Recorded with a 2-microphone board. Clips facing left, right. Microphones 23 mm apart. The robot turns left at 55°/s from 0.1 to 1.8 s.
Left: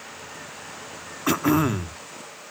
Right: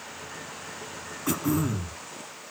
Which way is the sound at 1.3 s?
30° left (ahead or behind).